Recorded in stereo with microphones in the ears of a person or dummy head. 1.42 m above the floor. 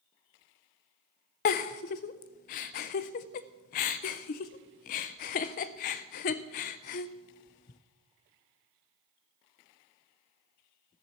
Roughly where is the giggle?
Left.